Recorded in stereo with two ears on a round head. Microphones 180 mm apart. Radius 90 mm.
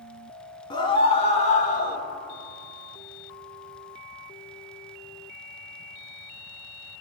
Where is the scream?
25° left (ahead or behind), 2 m; by 2.0 s 45° left (ahead or behind), 1.7 m.